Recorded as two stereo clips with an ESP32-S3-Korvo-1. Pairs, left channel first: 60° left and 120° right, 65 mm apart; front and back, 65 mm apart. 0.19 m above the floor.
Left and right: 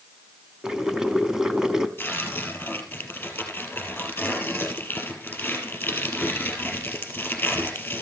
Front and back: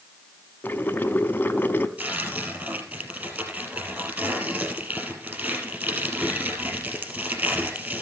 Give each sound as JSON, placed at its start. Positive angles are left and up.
{"t": 0.6, "sound": "boiling", "azimuth_deg": -45, "distance_m": 0.6}
{"t": 2.0, "sound": "tearing paper", "azimuth_deg": 120, "distance_m": 1.8}